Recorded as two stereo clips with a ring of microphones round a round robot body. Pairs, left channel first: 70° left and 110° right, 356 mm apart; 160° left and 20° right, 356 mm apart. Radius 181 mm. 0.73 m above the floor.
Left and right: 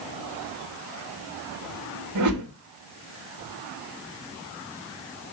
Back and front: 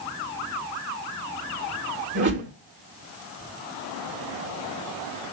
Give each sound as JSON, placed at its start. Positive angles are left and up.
{"t": 2.1, "sound": "a whoosh", "azimuth_deg": -80, "distance_m": 3.0}